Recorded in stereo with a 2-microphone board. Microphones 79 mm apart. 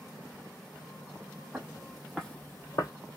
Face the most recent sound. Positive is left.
turn(degrees=55)  # may be behind; listen again after turning